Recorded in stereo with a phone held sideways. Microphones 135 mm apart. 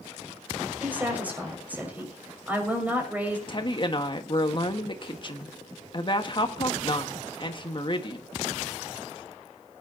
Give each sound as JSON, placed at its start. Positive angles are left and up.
{"t": 0.8, "sound": "a woman speaking", "side_deg": -10, "distance_m": 6.0}
{"t": 3.5, "sound": "a woman speaking", "side_deg": 40, "distance_m": 1.6}